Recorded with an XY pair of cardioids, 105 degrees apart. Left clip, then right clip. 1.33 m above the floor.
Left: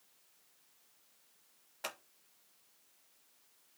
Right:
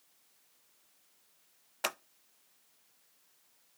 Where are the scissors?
55° right, 0.6 m.